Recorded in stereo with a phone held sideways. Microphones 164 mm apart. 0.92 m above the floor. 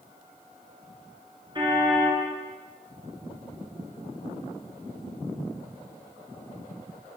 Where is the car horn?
30° right (ahead or behind), 8 m.